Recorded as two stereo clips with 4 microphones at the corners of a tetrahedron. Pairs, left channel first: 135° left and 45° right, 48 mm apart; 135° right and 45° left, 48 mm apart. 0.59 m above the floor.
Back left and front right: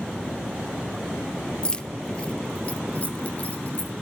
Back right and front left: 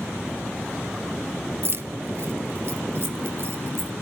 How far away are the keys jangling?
About 1.0 m.